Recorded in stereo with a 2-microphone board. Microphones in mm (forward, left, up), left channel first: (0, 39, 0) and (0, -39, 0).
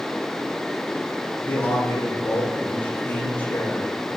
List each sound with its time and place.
1.4 s a man speaking: 20° left (ahead or behind), 5 m